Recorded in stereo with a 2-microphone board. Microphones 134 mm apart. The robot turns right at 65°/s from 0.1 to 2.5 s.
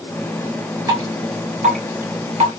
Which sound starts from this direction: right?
Dripping, at 0.9 s.